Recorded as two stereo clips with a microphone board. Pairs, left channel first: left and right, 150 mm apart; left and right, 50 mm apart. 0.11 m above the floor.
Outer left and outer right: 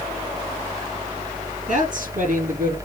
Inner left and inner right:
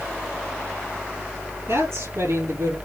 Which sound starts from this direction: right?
A woman speaking, at 1.7 s.